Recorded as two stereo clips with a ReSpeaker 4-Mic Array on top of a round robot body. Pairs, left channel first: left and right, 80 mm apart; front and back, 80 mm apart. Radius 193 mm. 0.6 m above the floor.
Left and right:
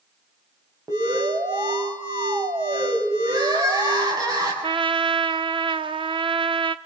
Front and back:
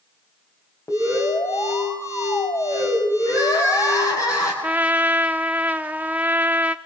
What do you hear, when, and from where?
0.9 s an alarm: 45° right, 5 m
3.3 s crying: 45° right, 7.5 m
4.6 s a trumpet: 105° right, 0.8 m